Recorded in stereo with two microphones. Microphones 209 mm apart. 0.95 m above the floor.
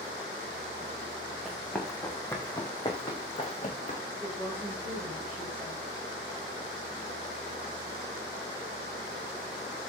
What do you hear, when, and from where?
1.4 s running footsteps: centre (ahead or behind), 3.5 m; by 4.0 s 35° left (ahead or behind), 4 m
4.2 s a woman speaking: 10° left (ahead or behind), 4 m